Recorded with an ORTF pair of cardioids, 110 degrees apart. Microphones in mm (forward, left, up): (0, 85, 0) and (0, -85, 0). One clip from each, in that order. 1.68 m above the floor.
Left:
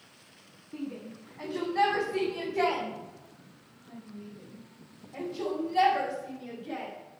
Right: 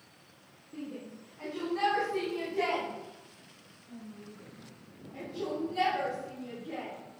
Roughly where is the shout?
Ahead left.